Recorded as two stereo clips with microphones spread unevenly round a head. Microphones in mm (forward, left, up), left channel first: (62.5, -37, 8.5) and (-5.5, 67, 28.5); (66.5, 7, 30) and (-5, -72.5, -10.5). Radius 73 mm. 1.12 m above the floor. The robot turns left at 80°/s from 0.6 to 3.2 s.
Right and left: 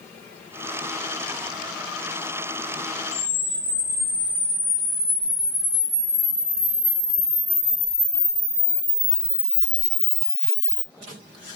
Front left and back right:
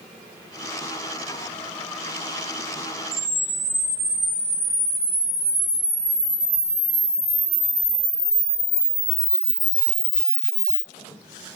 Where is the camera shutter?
50° right, 1.4 m; by 10.8 s 60° right, 1.4 m.